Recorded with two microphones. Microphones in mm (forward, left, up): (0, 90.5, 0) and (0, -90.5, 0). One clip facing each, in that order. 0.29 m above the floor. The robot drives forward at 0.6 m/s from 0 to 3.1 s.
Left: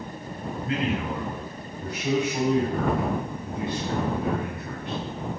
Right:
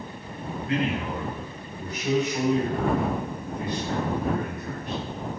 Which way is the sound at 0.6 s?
35° left (ahead or behind).